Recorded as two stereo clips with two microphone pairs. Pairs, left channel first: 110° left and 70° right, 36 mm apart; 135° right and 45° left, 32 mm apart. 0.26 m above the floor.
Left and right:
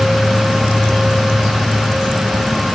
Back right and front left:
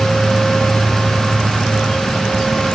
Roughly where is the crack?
No crack in this recording.